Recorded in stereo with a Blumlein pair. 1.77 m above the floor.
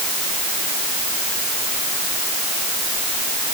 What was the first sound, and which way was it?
Only background noise.